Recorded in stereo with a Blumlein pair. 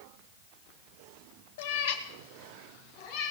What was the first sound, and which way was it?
A cat meowing, 55° left.